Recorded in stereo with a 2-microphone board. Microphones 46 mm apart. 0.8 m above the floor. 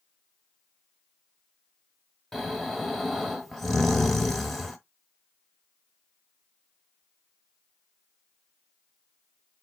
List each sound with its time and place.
2.3 s snoring: 5° left (ahead or behind), 0.7 m